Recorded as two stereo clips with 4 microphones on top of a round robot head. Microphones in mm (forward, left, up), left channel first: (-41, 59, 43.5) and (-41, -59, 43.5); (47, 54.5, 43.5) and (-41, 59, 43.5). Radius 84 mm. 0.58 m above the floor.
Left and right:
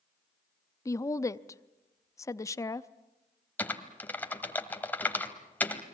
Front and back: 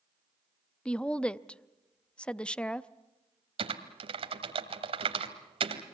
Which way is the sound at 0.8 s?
65° left.